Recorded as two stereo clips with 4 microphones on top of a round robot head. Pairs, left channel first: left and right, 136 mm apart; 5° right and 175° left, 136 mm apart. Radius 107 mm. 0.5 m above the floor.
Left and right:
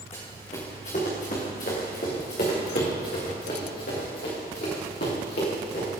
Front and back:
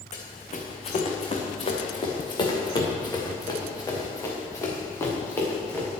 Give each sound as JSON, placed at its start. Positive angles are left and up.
{"t": 0.1, "sound": "running footsteps", "azimuth_deg": 30, "distance_m": 3.0}